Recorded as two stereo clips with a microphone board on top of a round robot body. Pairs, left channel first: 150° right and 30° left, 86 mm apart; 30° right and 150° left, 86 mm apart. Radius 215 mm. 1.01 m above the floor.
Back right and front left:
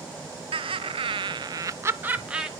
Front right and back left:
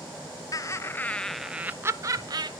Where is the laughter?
20° left, 0.7 m; by 2.5 s 110° left, 0.8 m.